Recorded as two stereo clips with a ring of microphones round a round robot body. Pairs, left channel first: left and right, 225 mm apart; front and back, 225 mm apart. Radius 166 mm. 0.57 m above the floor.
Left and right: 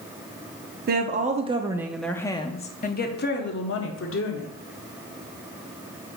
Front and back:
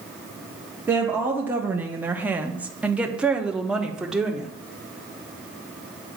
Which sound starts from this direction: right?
A woman speaking, at 0.9 s.